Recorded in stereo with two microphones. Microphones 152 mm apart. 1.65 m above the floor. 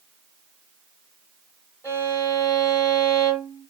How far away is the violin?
About 1.2 m.